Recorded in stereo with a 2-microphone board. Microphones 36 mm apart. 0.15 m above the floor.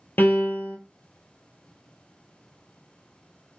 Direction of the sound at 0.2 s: 75° left (ahead or behind).